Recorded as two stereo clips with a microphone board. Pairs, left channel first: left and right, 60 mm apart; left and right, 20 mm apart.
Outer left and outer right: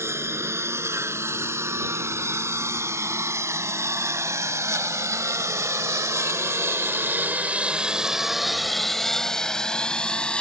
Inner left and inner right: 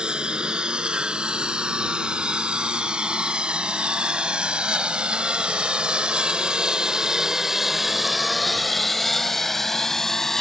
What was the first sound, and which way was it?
A lawn mower, 50° right (ahead or behind).